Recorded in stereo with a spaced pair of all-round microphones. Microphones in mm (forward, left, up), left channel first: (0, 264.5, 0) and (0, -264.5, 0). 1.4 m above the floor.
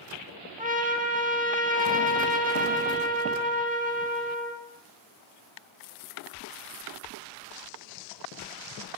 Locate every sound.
0.6 s a trumpet: 15° right (ahead or behind), 1.8 m